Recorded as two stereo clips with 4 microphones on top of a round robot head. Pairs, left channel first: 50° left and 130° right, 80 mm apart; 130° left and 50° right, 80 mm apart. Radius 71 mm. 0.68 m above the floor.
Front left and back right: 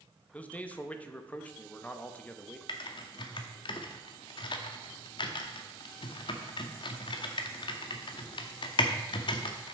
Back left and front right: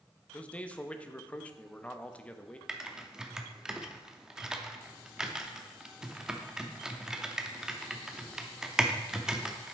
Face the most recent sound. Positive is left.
turn(degrees=35)